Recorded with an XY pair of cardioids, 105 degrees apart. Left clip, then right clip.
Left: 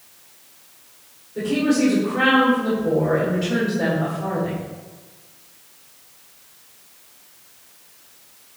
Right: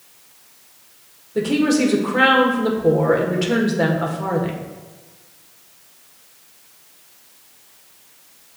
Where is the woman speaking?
70° right, 1.4 m.